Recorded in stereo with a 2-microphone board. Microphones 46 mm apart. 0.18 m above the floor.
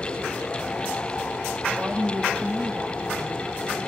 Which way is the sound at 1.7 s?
50° right (ahead or behind).